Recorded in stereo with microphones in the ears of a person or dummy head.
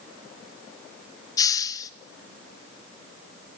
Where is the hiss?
20° left (ahead or behind), 0.6 m.